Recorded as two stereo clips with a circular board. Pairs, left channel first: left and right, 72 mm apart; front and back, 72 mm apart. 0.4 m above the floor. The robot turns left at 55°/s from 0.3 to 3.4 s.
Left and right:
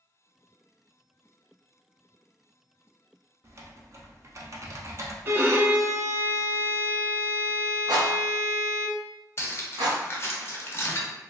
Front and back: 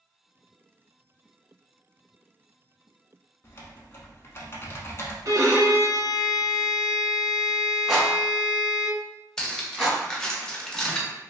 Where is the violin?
145° right, 0.6 m.